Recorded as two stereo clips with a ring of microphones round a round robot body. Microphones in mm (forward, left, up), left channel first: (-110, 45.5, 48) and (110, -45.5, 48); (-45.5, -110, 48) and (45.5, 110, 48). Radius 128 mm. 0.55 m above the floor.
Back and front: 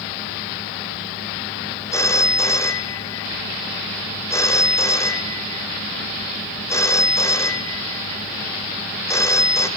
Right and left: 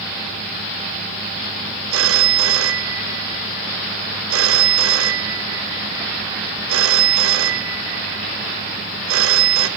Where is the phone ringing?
80° left, 1.0 m.